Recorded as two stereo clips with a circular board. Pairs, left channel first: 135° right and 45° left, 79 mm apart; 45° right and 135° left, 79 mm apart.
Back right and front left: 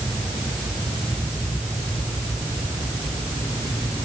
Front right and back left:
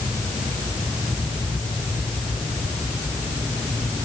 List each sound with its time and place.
Only background noise.